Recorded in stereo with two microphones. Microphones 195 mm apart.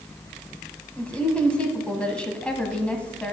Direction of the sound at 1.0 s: 5° left (ahead or behind).